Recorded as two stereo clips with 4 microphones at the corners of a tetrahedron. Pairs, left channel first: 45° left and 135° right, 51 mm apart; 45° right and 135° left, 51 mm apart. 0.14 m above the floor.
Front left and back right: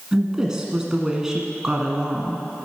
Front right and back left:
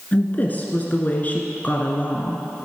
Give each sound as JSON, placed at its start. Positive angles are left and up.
{"t": 0.1, "sound": "a woman speaking", "azimuth_deg": -65, "distance_m": 1.3}